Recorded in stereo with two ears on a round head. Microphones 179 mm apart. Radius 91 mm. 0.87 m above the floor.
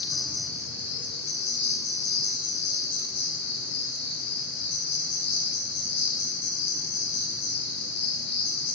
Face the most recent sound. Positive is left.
turn(degrees=55)  # may be behind; listen again after turning